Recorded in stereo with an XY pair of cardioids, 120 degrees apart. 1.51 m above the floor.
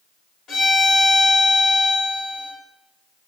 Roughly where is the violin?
Ahead left.